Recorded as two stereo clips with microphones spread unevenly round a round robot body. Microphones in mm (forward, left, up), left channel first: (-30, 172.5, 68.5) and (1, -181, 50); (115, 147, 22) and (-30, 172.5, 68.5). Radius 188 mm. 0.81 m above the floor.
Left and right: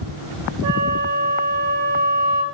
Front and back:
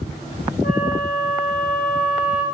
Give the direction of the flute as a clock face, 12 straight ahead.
1 o'clock.